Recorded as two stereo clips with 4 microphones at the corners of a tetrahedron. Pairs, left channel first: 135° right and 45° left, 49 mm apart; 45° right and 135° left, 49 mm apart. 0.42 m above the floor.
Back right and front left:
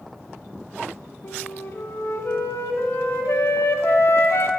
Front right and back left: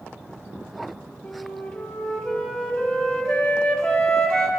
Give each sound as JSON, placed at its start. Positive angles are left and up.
{"t": 1.2, "sound": "a flute", "azimuth_deg": -120, "distance_m": 0.8}